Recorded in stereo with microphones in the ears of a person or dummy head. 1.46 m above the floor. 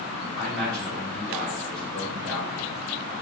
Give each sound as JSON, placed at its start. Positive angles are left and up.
{"t": 0.4, "sound": "a man speaking", "side_deg": 0, "distance_m": 1.5}